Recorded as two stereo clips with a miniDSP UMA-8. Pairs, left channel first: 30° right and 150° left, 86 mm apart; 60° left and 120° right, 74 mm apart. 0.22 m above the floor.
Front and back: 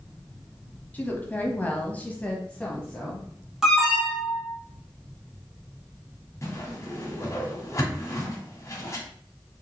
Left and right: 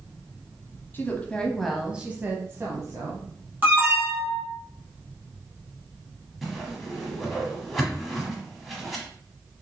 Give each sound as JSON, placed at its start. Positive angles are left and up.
{"t": 0.9, "sound": "a woman speaking", "azimuth_deg": 30, "distance_m": 1.1}
{"t": 3.6, "sound": "an alarm", "azimuth_deg": -135, "distance_m": 2.0}
{"t": 6.4, "sound": "a whoosh", "azimuth_deg": -30, "distance_m": 1.6}